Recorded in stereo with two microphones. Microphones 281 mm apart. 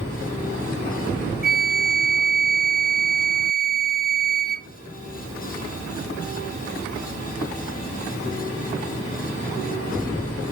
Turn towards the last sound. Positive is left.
turn(degrees=-35)  # may be behind; listen again after turning